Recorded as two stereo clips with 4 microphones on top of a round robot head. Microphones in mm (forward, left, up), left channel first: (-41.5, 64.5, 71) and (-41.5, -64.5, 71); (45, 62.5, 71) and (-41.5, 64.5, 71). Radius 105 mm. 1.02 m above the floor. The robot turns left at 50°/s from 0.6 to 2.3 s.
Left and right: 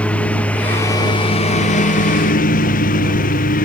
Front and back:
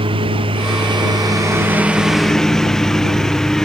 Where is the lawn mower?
170° left; by 3.6 s 85° left.